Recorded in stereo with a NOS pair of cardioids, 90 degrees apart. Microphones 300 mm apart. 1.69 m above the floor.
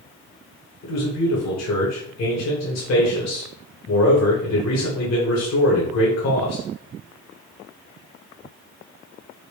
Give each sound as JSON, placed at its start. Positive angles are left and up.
{"t": 0.8, "sound": "a man speaking", "azimuth_deg": 60, "distance_m": 1.7}